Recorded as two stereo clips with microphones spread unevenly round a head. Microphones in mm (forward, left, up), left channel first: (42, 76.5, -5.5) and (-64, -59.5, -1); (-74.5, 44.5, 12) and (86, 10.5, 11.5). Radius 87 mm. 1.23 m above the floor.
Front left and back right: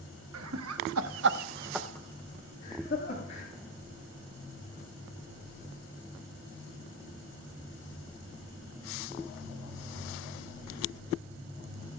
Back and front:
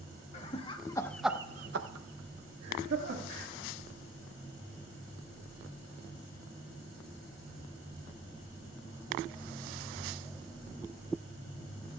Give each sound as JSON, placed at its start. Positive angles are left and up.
{"t": 0.3, "sound": "laughter", "azimuth_deg": -135, "distance_m": 1.7}